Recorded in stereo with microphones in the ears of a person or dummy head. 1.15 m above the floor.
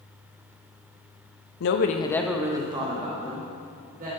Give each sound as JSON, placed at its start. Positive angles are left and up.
{"t": 1.6, "sound": "a woman speaking", "side_deg": 65, "distance_m": 0.9}